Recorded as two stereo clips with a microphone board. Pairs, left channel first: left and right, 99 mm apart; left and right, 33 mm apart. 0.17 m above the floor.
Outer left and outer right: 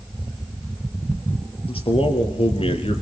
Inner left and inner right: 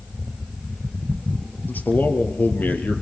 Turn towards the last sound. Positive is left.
turn(degrees=70)  # may be behind; listen again after turning